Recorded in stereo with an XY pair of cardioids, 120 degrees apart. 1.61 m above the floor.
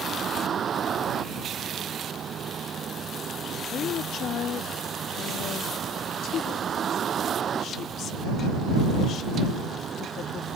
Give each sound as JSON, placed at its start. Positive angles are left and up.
{"t": 0.0, "sound": "a vehicle", "azimuth_deg": -40}
{"t": 3.7, "sound": "a woman speaking", "azimuth_deg": 60}